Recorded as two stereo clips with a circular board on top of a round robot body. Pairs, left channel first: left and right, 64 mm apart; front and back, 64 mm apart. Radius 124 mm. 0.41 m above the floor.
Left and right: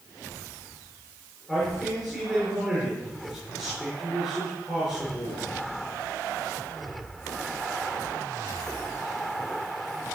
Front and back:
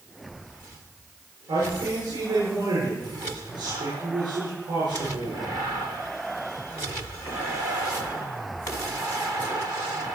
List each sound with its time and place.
1.5 s a man speaking: 175° left, 7.5 m